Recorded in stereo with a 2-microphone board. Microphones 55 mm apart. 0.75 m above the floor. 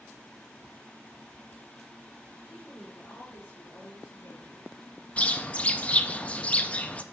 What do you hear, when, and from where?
2.5 s a woman speaking: 40° left (ahead or behind), 2.5 m; by 4.7 s 55° left (ahead or behind), 1.6 m
5.2 s a bird: 25° left (ahead or behind), 0.5 m